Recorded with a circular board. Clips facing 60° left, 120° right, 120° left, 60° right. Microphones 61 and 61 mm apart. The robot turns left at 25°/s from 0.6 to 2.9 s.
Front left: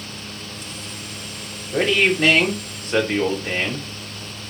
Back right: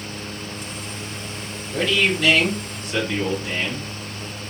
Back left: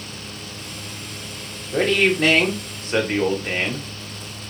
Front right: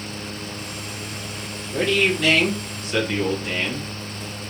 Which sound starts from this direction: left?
A man speaking, at 1.7 s.